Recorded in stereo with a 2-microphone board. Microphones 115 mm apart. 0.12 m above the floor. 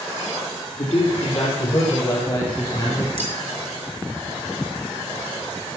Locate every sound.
0.8 s a man speaking: 60° left (ahead or behind), 3.5 m; by 3.1 s 35° left (ahead or behind), 3.5 m
3.2 s cutlery clinking: 50° left (ahead or behind), 6 m